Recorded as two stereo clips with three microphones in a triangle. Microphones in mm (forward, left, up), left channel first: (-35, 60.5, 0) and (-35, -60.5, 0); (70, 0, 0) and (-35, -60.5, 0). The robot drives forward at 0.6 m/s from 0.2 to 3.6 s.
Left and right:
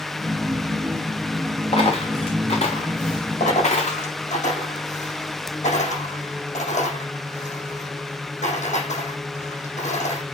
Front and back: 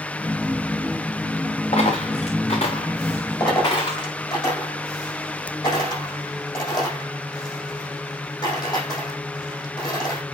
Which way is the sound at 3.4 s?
85° left.